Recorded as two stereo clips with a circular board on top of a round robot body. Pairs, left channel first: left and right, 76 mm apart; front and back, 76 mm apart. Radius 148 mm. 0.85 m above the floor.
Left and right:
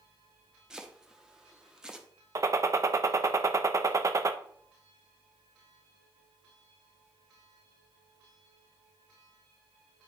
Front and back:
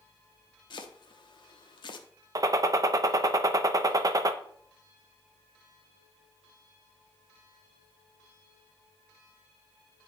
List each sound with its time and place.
0.7 s chopping: 10° right, 0.7 m
2.4 s a gunshot: 140° right, 0.6 m